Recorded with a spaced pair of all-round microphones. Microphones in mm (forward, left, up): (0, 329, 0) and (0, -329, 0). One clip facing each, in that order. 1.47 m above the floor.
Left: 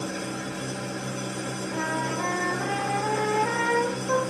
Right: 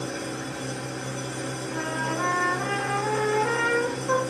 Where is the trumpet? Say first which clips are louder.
Left 1 dB; 40° right (ahead or behind), 0.7 m.